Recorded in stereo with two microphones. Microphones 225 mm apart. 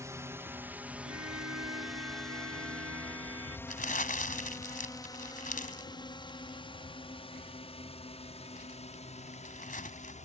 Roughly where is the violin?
Right.